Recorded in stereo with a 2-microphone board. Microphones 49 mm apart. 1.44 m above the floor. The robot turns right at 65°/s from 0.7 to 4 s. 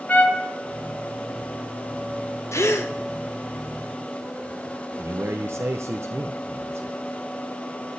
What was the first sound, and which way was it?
A trumpet, 30° left (ahead or behind).